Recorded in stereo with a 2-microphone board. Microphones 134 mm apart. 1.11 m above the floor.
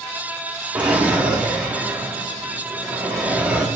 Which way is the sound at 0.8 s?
10° right (ahead or behind).